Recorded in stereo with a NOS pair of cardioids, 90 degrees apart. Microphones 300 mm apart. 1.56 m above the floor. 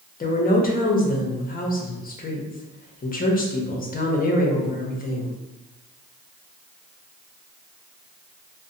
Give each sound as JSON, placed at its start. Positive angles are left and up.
{"t": 0.2, "sound": "a woman speaking", "azimuth_deg": 30, "distance_m": 0.8}